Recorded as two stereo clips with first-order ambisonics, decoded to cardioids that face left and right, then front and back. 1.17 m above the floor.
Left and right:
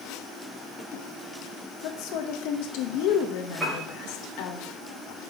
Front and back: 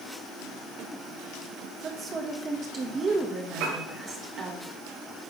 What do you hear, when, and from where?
1.8 s a woman speaking: 115° left, 1.4 m
3.6 s a piano: 175° right, 4 m